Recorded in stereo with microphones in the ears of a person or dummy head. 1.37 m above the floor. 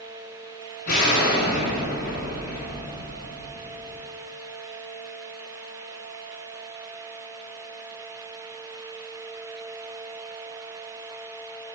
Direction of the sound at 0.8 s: 50° left (ahead or behind).